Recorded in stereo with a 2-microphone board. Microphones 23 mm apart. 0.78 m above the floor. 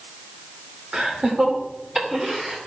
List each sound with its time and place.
0.9 s laughter: 40° right (ahead or behind), 2.5 m; by 2.6 s 20° right (ahead or behind), 3 m